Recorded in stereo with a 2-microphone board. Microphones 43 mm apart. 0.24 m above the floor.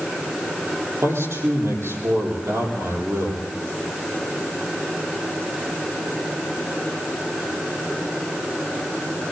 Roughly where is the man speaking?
Right.